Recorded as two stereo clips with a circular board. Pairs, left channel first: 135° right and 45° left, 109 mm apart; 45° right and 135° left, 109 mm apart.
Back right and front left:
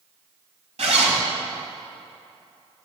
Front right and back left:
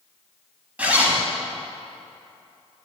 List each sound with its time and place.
0.8 s a zipper: 60° left, 1.2 m